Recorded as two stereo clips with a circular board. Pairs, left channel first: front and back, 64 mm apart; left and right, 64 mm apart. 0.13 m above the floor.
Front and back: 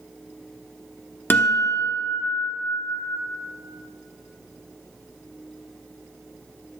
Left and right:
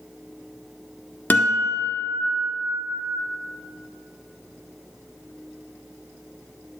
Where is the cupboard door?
No cupboard door in this recording.